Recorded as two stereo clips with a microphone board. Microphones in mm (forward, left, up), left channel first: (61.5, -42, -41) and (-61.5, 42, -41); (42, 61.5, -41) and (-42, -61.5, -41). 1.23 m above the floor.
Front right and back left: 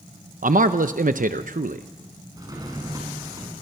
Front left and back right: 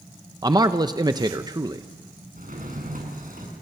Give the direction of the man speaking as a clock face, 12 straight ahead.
6 o'clock.